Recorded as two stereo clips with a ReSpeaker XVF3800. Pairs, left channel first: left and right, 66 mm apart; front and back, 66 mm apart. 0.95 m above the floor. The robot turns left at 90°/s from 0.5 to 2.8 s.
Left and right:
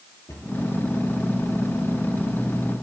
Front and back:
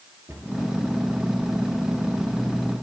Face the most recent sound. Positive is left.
turn(degrees=-80)